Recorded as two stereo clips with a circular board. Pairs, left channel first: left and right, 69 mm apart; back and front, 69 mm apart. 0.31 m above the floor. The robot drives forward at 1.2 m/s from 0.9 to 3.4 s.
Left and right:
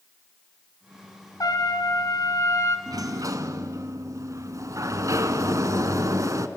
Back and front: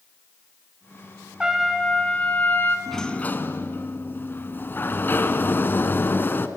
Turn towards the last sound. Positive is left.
turn(degrees=-125)